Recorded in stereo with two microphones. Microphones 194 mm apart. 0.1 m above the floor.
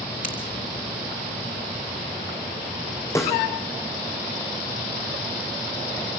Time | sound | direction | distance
0.2 | scissors | 45° left (ahead or behind) | 4 m
3.1 | a snare drum | 15° left (ahead or behind) | 4 m